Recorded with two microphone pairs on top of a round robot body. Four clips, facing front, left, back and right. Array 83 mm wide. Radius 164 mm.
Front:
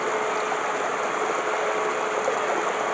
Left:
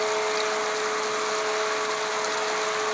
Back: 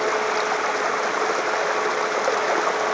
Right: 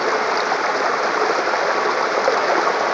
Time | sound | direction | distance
0.0 | running water | 95° right | ?